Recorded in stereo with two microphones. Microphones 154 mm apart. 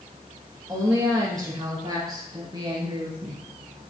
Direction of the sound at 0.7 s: 20° right (ahead or behind).